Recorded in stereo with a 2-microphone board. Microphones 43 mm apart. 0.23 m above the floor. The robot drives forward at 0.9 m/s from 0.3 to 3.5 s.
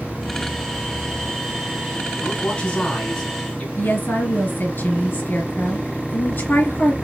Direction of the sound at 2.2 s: 25° left (ahead or behind).